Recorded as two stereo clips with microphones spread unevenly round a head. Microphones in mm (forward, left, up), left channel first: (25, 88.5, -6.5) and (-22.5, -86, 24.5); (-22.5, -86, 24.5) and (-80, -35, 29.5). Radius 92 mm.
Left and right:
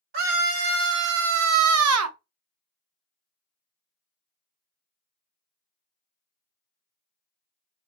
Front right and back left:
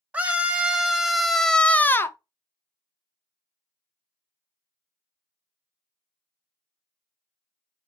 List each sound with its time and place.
0.1 s a scream: 150° right, 1.5 m; by 2.2 s 95° right, 0.7 m